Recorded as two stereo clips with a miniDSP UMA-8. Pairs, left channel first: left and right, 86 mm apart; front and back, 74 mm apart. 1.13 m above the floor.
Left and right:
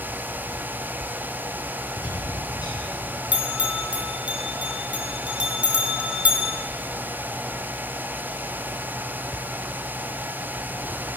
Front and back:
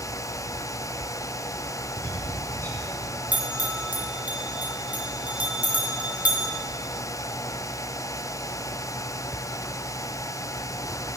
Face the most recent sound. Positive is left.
turn(degrees=-140)